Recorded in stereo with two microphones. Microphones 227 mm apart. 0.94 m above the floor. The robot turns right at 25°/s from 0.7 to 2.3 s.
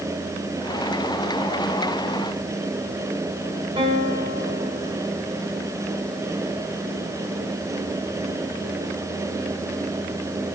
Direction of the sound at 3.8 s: 25° right (ahead or behind).